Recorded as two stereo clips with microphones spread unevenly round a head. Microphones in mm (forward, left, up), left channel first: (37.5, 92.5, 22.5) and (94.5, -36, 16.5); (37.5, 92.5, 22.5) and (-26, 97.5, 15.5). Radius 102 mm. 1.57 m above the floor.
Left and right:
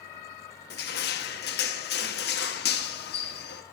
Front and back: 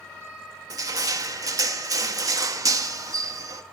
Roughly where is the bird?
No bird in this recording.